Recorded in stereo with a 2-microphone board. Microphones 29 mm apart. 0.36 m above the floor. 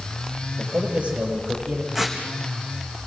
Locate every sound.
0.6 s a man speaking: 50° right (ahead or behind), 7.5 m
1.9 s tearing paper: 10° right (ahead or behind), 4.5 m